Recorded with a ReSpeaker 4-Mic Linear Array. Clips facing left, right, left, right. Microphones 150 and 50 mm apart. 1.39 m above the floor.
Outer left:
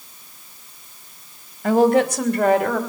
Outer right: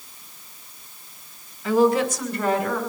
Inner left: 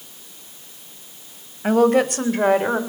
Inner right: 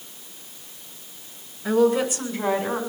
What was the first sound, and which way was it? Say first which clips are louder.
A woman speaking: outer left 3 dB, inner left 3 dB; 60° left (ahead or behind).